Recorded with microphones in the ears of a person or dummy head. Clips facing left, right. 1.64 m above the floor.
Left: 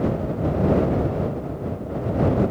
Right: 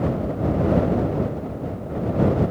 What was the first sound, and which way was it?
Only background noise.